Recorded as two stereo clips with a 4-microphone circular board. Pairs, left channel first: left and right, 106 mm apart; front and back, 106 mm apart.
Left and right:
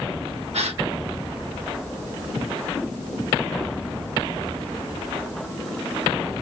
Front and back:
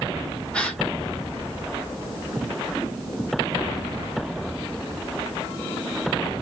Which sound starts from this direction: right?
A gasp, at 0.5 s.